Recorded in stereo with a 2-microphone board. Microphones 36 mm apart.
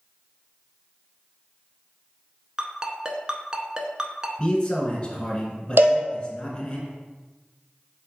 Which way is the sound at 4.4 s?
20° left (ahead or behind).